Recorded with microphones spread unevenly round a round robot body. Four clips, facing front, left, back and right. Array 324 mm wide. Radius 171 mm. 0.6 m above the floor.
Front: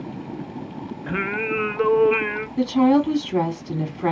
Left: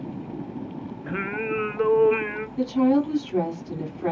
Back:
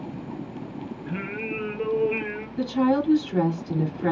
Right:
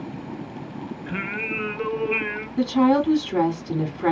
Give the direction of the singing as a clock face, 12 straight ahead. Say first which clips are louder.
Left 4 dB, front 8 dB; 12 o'clock.